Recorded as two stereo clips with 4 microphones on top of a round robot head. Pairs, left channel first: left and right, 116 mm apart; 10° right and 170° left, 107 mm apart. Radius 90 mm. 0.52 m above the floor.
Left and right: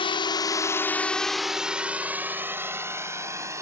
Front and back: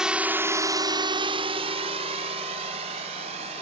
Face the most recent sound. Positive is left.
turn(degrees=-155)